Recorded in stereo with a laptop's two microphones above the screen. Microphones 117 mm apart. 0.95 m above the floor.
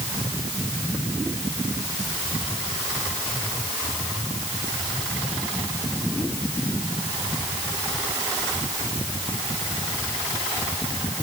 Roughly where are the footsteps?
No footsteps in this recording.